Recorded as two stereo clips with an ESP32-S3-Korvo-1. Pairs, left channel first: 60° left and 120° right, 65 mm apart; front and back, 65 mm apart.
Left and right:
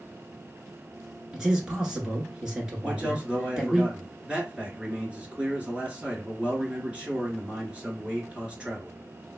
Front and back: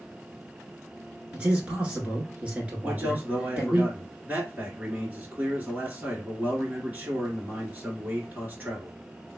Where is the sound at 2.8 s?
170° right, 1.4 m.